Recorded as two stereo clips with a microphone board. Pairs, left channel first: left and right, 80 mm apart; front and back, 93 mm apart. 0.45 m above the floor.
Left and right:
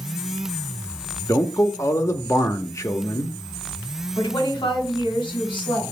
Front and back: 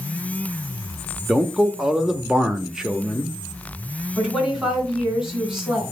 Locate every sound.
1.3 s a man speaking: 100° left, 0.9 m
4.2 s a woman speaking: 95° left, 4 m